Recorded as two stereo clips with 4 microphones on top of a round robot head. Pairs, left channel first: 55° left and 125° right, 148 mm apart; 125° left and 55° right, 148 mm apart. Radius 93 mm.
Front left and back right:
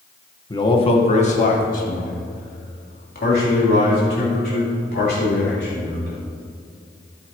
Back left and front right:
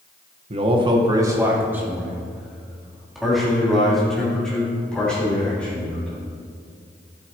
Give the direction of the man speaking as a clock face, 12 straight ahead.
12 o'clock.